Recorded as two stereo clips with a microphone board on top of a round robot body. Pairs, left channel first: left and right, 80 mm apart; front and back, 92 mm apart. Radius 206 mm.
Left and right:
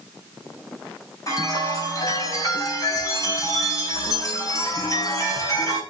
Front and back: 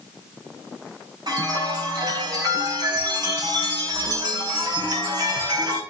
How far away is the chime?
About 4.5 m.